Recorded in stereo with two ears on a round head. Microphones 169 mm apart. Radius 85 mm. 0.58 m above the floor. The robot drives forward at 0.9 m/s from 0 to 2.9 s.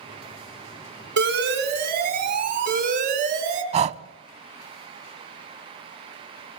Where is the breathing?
35° right (ahead or behind), 0.6 m.